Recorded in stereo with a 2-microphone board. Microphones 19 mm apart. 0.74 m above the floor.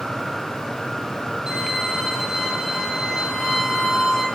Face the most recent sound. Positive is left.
turn(degrees=-35)  # may be behind; listen again after turning